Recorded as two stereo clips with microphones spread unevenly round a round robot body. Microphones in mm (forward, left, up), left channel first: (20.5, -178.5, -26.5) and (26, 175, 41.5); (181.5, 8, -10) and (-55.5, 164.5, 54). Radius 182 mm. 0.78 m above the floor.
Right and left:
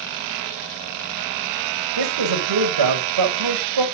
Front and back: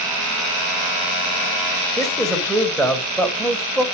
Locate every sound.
2.0 s a man speaking: 55° left, 5 m